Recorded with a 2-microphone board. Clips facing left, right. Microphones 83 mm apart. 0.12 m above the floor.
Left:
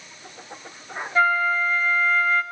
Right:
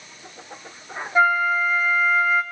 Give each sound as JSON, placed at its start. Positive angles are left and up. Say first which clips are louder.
{"t": 1.1, "sound": "a flute", "louder": "right 2 dB", "side_deg": -15, "distance_m": 0.9}